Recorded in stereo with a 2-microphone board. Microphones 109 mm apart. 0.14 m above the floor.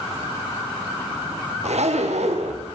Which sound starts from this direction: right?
A zipper, at 1.6 s.